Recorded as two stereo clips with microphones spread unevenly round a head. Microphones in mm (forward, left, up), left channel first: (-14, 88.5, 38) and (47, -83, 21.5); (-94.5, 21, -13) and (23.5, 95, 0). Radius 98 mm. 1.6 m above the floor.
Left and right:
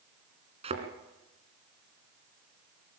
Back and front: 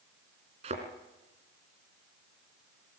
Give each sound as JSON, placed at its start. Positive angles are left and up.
{"t": 0.6, "sound": "a thud", "azimuth_deg": -10, "distance_m": 3.0}